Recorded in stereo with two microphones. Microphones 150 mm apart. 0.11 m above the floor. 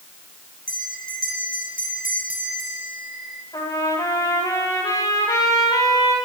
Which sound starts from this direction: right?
A bell, at 0.7 s.